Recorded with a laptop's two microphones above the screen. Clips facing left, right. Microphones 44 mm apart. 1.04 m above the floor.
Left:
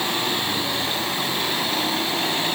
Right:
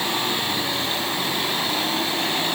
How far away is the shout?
No shout in this recording.